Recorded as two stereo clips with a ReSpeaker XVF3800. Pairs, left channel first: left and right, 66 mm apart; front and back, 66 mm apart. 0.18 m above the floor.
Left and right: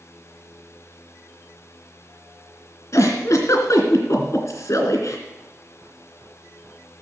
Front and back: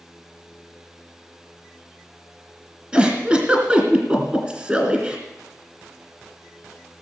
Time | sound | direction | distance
2.9 | a giggle | 110° left | 2.5 m